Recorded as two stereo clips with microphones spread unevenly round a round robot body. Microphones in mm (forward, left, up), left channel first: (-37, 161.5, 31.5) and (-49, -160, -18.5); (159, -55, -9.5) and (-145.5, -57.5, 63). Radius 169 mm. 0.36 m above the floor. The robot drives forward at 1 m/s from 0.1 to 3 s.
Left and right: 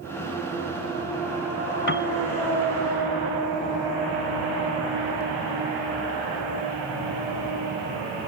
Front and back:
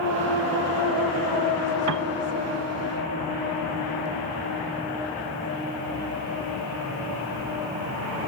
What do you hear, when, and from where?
1.9 s a piano: 140° left; by 2.1 s 145° left